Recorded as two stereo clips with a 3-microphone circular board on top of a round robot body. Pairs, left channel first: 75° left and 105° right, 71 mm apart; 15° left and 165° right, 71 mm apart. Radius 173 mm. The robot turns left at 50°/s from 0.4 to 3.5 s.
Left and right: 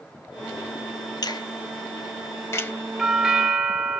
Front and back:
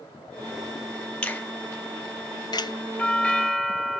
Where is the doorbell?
20° right, 0.9 m; by 4.0 s 45° right, 0.9 m.